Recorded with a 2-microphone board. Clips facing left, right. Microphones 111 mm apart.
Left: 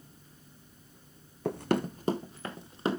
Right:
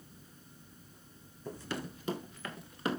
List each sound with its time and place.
1.4 s running footsteps: 70° left (ahead or behind), 0.7 m; by 3.0 s 25° left (ahead or behind), 2 m